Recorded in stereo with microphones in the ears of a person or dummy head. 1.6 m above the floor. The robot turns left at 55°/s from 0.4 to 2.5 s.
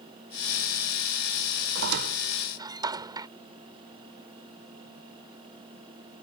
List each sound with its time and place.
1.8 s a squeak: 65° right (ahead or behind); by 3.3 s 25° right (ahead or behind)